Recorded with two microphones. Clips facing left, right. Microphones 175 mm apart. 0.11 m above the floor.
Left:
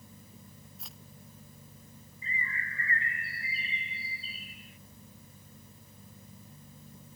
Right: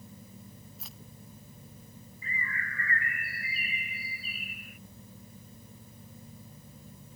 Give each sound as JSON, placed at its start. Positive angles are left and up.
{"t": 0.8, "sound": "keys jangling", "side_deg": 0}
{"t": 2.2, "sound": "a bird", "side_deg": 25}